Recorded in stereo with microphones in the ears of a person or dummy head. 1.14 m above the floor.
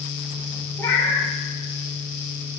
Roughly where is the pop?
I don't hear a pop.